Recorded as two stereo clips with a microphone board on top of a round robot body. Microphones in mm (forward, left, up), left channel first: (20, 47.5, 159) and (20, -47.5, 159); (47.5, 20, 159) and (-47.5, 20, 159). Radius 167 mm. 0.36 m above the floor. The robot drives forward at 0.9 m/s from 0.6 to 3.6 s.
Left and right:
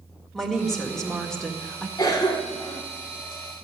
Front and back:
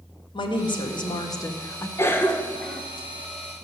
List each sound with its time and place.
0.3 s a woman speaking: 5° left, 2 m; by 1.9 s 15° left, 1.4 m
2.0 s a cough: 55° left, 2.0 m; by 2.8 s 85° left, 1.8 m